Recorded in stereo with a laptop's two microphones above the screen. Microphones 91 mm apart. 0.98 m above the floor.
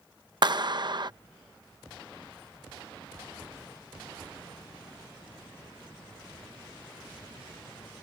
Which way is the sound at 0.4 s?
50° right (ahead or behind).